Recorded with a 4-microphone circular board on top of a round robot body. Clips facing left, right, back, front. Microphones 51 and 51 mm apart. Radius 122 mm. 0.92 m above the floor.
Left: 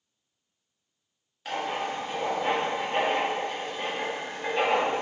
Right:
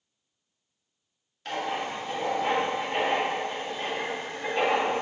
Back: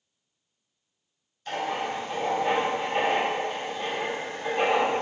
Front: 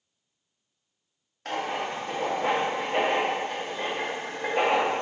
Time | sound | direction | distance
1.4 | writing | 10° left | 1.5 m